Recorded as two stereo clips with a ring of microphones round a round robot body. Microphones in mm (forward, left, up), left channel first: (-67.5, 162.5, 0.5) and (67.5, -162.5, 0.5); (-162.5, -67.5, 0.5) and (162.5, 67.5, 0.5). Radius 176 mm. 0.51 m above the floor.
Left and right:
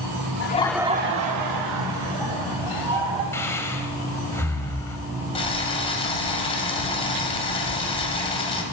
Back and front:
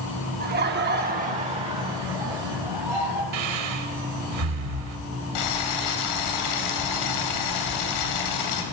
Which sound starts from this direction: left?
Laughter, at 0.4 s.